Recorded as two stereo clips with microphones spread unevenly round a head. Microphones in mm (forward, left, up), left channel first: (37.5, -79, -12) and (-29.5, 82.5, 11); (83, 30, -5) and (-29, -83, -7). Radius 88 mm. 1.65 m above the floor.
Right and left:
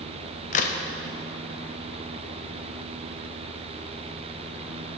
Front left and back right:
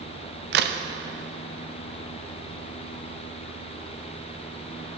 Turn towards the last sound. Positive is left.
turn(degrees=-115)